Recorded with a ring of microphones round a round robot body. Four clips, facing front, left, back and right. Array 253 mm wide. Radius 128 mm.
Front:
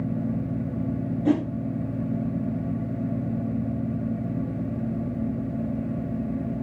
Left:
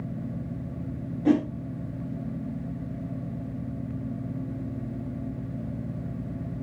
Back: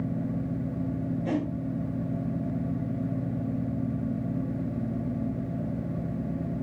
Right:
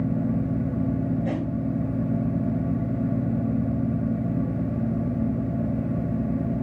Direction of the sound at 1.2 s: 55° left.